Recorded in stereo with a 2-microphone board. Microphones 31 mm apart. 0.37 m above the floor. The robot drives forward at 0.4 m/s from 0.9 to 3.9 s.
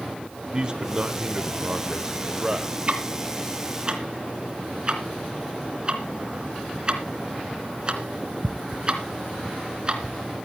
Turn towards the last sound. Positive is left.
turn(degrees=-30)  # may be behind; listen again after turning